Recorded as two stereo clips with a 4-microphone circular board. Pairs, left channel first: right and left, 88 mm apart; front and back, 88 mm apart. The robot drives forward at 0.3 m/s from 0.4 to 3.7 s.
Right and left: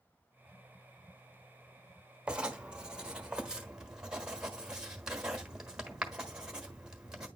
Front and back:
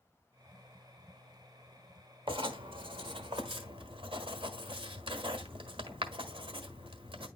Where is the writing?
170° left, 1.0 m.